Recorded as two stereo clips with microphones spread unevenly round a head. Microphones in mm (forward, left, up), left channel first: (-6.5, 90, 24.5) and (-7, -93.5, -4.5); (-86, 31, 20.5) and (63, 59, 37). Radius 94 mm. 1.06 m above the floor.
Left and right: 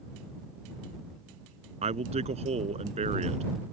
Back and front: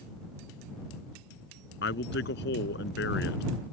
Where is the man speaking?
150° right.